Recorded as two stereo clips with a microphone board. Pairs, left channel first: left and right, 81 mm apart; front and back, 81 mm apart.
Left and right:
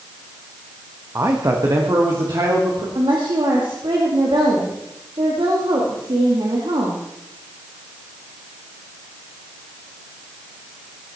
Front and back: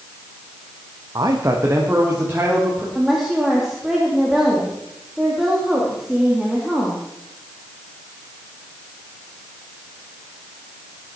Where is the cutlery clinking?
I don't hear cutlery clinking.